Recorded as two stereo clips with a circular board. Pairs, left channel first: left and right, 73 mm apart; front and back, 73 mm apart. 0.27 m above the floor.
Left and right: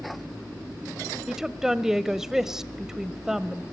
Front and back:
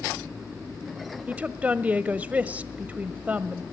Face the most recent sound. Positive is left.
turn(degrees=-160)